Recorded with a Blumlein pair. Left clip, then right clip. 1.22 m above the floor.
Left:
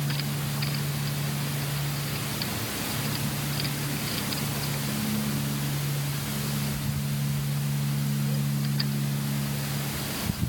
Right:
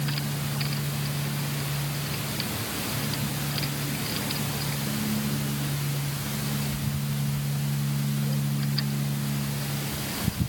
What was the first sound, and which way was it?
Only background noise.